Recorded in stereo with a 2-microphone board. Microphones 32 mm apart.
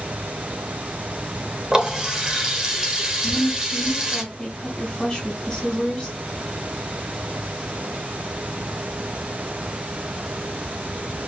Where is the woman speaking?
10° left (ahead or behind), 2.5 m.